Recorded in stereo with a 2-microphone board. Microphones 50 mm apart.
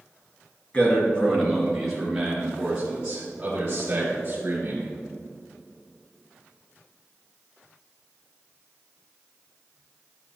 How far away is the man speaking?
About 2.0 m.